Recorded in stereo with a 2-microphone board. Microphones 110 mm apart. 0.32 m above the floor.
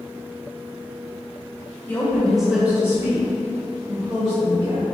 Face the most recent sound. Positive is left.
turn(degrees=-60)  # may be behind; listen again after turning